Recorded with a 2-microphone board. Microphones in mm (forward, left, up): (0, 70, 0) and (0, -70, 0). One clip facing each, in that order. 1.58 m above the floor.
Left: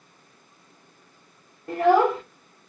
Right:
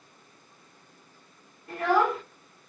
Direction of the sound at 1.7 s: 55° left (ahead or behind).